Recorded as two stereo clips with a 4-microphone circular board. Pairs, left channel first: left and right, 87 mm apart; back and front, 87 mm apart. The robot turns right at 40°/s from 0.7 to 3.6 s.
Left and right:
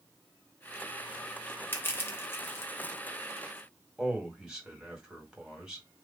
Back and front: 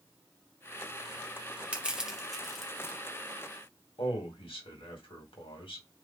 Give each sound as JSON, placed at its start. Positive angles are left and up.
{"t": 1.7, "sound": "crushing", "azimuth_deg": 60, "distance_m": 1.0}
{"t": 4.0, "sound": "a man speaking", "azimuth_deg": -175, "distance_m": 2.0}